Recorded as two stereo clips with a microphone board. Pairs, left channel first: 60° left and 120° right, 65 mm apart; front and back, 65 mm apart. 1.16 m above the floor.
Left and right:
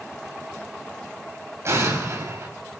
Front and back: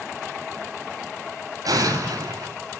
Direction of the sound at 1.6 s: 165° right.